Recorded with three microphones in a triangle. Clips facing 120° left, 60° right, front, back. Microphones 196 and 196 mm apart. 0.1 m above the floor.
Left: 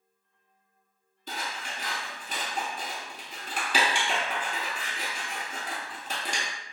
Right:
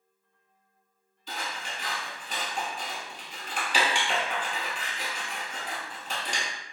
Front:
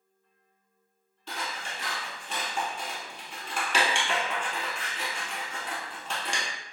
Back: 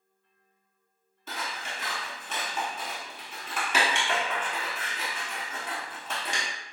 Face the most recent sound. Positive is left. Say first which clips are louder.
# even, even
turn(degrees=95)